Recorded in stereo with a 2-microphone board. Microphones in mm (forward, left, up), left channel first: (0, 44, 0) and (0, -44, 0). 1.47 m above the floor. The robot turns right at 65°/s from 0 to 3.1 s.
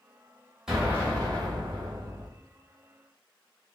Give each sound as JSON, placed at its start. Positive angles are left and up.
{"t": 0.7, "sound": "an explosion", "azimuth_deg": -170, "distance_m": 2.5}